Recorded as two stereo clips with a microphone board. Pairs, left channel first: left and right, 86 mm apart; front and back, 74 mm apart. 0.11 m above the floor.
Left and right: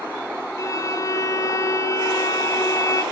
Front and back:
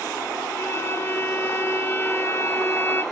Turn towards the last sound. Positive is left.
turn(degrees=50)